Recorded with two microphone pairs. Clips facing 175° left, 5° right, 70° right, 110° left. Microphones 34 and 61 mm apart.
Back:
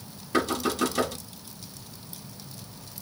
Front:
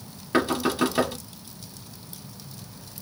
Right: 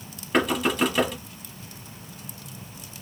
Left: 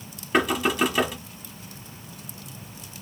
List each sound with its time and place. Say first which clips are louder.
0.3 s knocking: front 3 dB, even; 20° left, 1.0 m